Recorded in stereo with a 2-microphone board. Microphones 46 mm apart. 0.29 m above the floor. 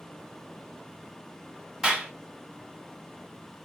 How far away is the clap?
About 1.6 m.